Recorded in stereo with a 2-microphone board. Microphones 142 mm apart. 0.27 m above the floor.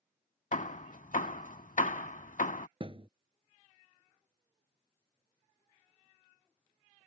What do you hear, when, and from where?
0.5 s hammering: 65° left (ahead or behind)
2.8 s a thud: 40° right (ahead or behind)